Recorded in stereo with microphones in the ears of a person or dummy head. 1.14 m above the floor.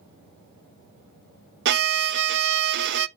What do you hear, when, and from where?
1.6 s a violin: 60° right (ahead or behind), 0.6 m